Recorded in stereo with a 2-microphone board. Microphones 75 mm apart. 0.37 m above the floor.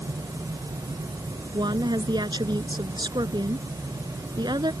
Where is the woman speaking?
70° right (ahead or behind).